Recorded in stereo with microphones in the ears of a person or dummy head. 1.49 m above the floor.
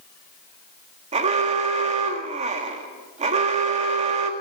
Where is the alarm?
30° right (ahead or behind), 1.9 m.